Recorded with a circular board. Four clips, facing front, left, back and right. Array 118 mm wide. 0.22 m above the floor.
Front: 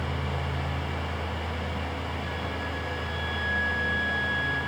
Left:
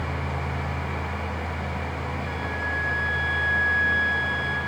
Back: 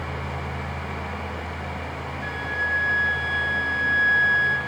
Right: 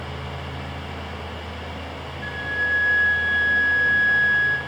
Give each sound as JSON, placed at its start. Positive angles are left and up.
{"t": 2.2, "sound": "a flute", "azimuth_deg": -125, "distance_m": 2.5}